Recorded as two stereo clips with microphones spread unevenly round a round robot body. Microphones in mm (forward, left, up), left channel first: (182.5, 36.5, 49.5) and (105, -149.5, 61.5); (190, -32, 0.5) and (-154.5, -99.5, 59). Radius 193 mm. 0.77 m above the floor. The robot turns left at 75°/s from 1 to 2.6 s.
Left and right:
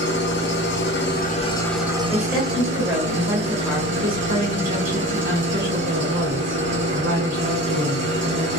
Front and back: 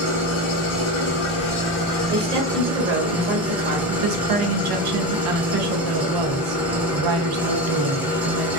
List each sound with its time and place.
0.0 s an engine running: 35° left, 0.8 m; by 8.6 s 85° right, 0.8 m
2.1 s a woman speaking: 135° right, 1.3 m; by 3.8 s 175° right, 1.3 m
3.9 s a woman speaking: 155° right, 0.6 m